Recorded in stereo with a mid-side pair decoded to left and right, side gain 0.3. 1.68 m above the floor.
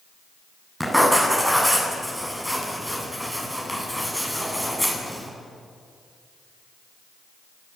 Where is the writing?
5° right, 8.5 m.